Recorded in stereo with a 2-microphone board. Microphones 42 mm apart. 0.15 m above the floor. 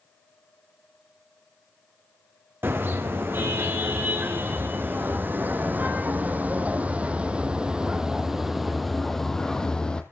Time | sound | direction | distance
2.6 | a car horn | 70° right (ahead or behind) | 4 m